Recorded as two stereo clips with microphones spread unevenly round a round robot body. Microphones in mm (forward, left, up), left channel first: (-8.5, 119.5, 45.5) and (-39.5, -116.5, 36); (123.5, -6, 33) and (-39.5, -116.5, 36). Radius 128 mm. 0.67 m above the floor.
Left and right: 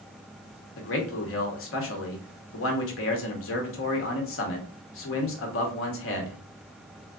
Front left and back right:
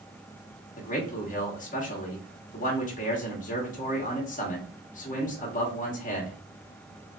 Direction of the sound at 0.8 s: 75° left.